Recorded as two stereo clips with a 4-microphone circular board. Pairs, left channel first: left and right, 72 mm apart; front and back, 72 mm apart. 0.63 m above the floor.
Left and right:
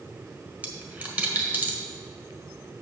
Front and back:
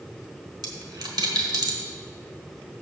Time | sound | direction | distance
0.6 | a dropped coin | 160° right | 1.2 m